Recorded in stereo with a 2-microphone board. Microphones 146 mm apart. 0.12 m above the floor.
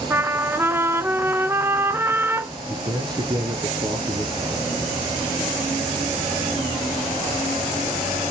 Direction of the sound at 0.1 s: 15° right (ahead or behind).